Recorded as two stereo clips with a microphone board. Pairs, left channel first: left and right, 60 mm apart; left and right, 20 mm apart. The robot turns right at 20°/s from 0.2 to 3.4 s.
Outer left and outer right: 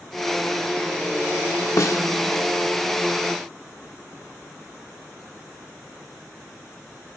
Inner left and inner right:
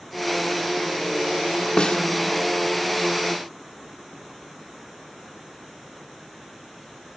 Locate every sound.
1.8 s a snare drum: 60° left (ahead or behind), 1.4 m